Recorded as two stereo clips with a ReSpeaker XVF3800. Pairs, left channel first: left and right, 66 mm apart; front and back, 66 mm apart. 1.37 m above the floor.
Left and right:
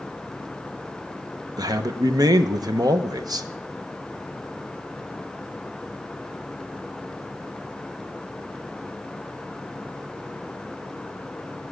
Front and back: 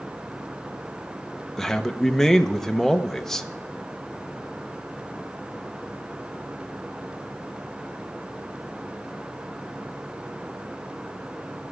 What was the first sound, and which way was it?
A man speaking, 85° right.